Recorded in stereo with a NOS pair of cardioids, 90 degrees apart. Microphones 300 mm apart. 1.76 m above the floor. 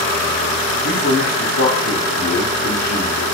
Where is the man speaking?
45° left, 1.2 m.